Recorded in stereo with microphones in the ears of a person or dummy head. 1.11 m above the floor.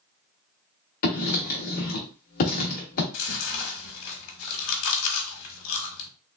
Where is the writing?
40° left (ahead or behind), 1.0 m.